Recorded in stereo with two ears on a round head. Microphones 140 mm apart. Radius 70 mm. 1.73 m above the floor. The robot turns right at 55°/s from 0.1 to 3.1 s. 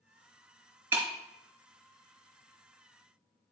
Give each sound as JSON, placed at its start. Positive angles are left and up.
{"t": 0.9, "sound": "breaking glass", "side_deg": -15, "distance_m": 1.5}